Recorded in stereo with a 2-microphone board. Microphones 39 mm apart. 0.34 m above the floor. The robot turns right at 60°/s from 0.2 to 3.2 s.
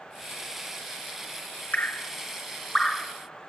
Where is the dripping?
45° left (ahead or behind), 0.8 m; by 3.1 s centre (ahead or behind), 0.8 m.